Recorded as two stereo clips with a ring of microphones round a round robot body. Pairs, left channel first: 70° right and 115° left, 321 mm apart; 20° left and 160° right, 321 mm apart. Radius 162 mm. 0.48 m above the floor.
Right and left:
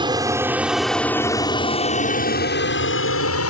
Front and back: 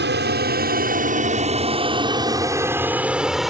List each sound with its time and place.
0.0 s an aircraft: straight behind; by 3.5 s 70° right